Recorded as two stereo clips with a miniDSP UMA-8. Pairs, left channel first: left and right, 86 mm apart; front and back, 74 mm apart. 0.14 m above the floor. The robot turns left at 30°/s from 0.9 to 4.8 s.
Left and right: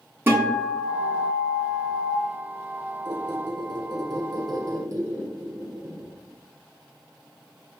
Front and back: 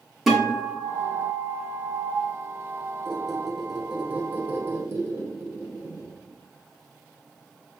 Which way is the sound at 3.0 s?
80° right.